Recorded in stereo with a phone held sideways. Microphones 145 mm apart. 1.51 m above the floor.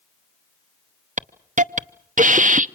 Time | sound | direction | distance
1.2 | a hiss | 60° right (ahead or behind) | 0.8 m